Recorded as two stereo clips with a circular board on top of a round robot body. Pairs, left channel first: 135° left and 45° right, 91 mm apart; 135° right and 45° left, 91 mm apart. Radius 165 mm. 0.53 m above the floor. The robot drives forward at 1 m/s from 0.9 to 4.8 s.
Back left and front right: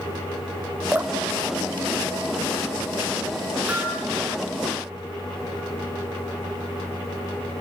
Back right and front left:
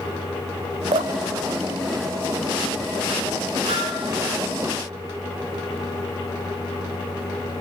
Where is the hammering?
30° left, 7.5 m.